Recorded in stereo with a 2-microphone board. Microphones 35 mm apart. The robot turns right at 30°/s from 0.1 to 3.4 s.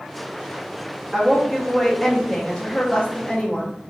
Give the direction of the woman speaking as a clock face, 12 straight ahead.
12 o'clock.